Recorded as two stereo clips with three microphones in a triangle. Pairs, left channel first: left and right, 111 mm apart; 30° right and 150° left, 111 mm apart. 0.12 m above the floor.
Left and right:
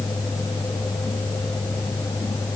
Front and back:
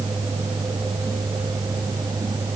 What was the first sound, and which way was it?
Only background noise.